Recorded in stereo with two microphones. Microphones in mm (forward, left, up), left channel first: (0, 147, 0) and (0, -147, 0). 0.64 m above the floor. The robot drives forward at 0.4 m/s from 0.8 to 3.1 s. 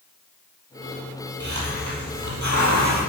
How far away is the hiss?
About 9.5 m.